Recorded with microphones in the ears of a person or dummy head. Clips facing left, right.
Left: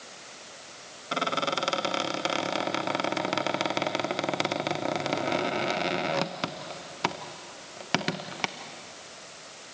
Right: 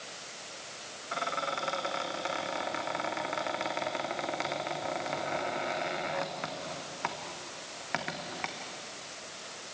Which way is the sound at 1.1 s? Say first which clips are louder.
Left 6 dB; 45° left (ahead or behind).